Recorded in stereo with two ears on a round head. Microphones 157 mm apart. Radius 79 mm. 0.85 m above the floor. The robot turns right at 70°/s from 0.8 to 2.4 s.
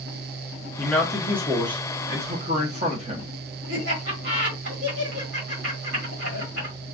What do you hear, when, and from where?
0.8 s a man speaking: 160° left, 1.2 m; by 3.3 s 90° right, 1.2 m
3.7 s laughter: 70° right (ahead or behind), 2 m